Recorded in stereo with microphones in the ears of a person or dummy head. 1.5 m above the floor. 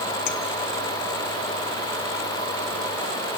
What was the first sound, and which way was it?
A clink, 55° left (ahead or behind).